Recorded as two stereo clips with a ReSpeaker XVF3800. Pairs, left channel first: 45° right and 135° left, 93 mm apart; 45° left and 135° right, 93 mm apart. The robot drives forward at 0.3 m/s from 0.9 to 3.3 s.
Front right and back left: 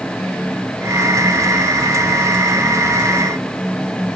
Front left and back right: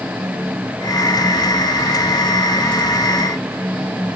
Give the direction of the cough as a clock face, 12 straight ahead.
I don't hear a cough.